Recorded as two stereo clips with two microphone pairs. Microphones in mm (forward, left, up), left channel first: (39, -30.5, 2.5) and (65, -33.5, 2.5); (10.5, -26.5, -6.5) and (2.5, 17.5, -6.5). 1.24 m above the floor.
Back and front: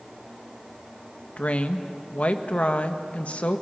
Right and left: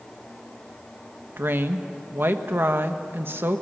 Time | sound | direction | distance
1.4 | a woman speaking | 140° left | 1.3 m